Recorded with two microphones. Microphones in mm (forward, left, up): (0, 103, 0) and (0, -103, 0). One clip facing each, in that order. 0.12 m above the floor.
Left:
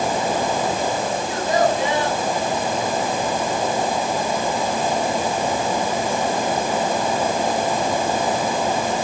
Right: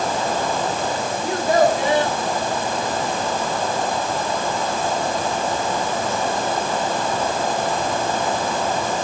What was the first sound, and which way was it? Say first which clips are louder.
A child speaking: right 4 dB; 60° right (ahead or behind).